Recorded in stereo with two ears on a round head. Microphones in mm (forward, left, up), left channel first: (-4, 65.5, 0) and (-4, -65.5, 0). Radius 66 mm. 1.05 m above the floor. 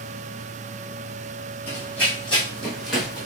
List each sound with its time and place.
1.7 s running footsteps: 15° left (ahead or behind), 2.5 m; by 3.3 s 5° right (ahead or behind), 3 m